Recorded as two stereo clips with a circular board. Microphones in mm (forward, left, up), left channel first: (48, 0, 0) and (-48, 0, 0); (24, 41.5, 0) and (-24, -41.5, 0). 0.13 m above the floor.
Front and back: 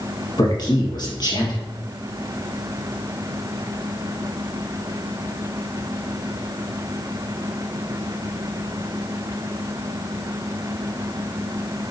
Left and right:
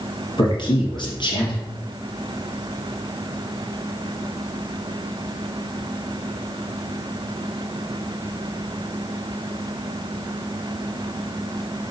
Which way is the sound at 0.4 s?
35° left.